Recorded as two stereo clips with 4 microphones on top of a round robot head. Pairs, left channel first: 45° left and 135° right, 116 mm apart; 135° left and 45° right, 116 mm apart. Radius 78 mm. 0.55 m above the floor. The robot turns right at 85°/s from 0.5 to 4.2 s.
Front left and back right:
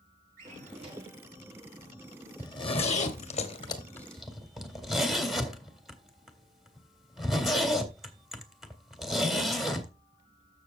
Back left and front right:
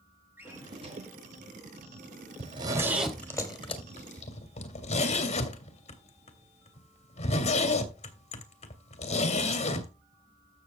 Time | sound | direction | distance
0.4 | a drawer | 120° right | 4.5 m
2.4 | a zipper | 15° right | 2 m